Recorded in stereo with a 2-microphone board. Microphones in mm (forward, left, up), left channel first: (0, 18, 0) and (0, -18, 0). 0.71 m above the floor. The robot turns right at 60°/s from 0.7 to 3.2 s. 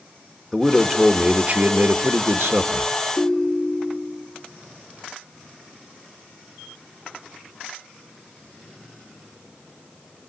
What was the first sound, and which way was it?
A man speaking, 170° left.